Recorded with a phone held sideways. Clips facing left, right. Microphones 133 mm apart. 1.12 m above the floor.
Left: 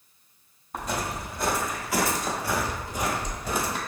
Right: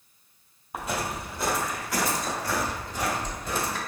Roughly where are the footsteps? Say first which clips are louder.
Even; centre.